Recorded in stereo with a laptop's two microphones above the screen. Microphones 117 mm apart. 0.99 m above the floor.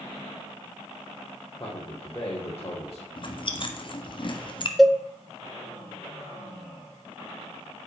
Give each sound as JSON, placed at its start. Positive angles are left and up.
{"t": 1.6, "sound": "a man speaking", "side_deg": 30, "distance_m": 3.0}
{"t": 3.2, "sound": "chewing", "side_deg": 45, "distance_m": 1.5}
{"t": 4.8, "sound": "a cowbell", "side_deg": 0, "distance_m": 0.6}